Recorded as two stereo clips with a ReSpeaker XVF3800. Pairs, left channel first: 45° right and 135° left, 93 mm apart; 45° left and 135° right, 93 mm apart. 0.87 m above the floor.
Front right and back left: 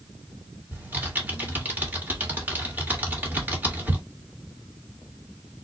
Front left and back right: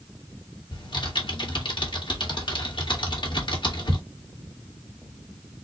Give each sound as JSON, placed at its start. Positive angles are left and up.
{"t": 0.7, "sound": "typing on a keyboard", "azimuth_deg": 65, "distance_m": 1.7}